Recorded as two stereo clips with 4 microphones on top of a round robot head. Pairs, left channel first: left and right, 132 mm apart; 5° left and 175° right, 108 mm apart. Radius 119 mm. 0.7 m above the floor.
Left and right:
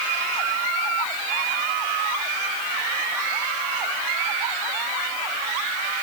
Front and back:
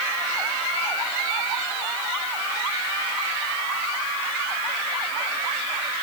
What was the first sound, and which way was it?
Only background noise.